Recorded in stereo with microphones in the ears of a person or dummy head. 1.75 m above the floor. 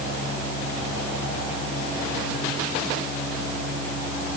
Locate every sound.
Only background noise.